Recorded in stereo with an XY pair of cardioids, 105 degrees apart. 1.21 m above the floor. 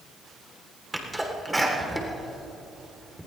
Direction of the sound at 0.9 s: 10° right.